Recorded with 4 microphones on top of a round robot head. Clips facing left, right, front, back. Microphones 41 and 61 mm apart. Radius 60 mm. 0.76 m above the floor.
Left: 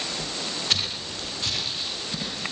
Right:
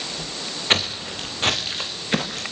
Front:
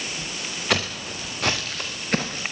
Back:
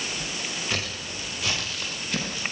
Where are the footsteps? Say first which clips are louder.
Right 9 dB, front 6 dB; 40° right, 5 m; by 2.4 s 60° right, 6 m.